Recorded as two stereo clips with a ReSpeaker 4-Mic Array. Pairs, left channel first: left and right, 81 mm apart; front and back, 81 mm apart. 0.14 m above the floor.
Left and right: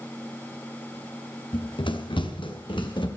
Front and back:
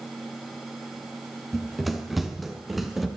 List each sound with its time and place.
1.5 s running footsteps: 90° left, 2 m